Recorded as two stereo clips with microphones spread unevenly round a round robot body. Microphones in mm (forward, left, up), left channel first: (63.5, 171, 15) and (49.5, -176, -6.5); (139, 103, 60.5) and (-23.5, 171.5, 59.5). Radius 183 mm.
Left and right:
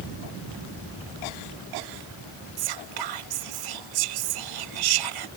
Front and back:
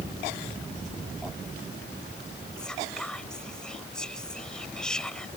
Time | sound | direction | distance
2.6 | whispering | 110° right | ?